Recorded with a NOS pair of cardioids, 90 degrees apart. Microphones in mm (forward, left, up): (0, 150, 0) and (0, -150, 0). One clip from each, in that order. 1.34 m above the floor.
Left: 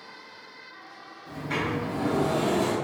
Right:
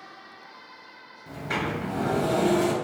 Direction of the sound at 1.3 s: 40° right.